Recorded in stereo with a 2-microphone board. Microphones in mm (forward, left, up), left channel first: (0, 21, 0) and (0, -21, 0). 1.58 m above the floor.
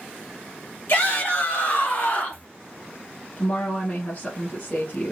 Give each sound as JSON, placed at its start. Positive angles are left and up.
{"t": 0.9, "sound": "a shout", "side_deg": 50, "distance_m": 2.5}
{"t": 3.4, "sound": "a woman speaking", "side_deg": 30, "distance_m": 2.0}